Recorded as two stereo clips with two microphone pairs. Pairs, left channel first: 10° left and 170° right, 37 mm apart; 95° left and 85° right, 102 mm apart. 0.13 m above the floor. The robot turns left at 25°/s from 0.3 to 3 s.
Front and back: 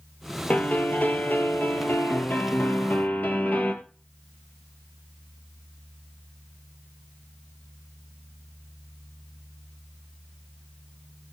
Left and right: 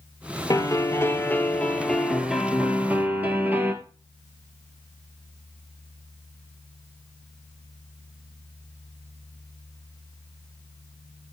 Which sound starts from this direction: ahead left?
A piano, at 0.5 s.